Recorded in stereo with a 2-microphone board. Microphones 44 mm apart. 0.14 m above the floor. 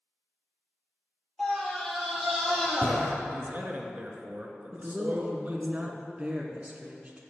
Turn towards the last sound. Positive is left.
turn(degrees=-25)  # may be behind; listen again after turning